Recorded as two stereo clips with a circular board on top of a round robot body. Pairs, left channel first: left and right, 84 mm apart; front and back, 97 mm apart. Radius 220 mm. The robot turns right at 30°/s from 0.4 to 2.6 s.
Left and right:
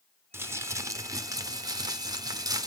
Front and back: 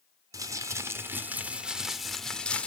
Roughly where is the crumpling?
Behind right.